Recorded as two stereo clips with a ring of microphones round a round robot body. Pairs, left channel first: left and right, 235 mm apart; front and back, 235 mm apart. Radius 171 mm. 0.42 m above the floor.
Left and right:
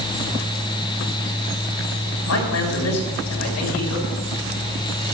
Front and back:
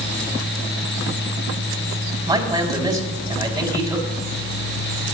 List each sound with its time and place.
2.3 s a man speaking: 105° left, 4 m